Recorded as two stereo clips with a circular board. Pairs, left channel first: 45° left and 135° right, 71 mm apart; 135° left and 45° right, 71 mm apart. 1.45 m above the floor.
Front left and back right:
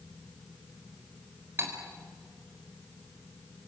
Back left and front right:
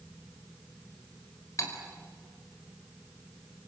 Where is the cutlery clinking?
170° left, 4 m.